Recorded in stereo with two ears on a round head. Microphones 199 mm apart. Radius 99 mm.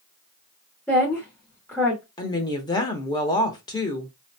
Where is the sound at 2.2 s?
20° left (ahead or behind), 0.7 m.